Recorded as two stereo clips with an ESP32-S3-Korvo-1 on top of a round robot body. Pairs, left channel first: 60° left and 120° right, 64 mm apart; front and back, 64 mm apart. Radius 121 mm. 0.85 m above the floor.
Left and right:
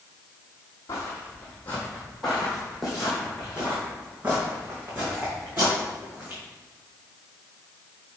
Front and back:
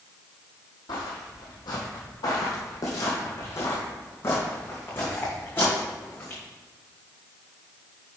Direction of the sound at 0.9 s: 10° left.